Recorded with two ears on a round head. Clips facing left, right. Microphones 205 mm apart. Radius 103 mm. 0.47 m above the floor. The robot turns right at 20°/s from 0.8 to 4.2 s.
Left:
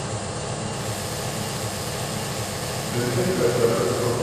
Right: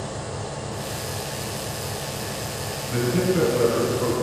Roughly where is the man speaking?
Right.